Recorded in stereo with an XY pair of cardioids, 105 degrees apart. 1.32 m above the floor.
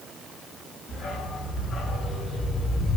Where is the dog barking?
65° left, 4.5 m; by 3.0 s 70° left, 3 m.